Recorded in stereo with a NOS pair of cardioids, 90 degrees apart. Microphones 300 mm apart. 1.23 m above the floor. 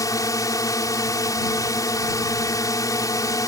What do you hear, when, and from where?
0.0 s a drone: 10° left